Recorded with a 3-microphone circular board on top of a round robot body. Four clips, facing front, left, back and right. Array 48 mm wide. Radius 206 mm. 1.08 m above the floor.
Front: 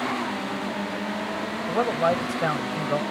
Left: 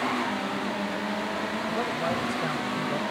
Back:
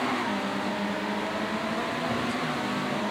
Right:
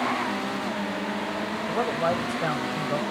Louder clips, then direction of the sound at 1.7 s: Right 5 dB, front 6 dB; 15° right.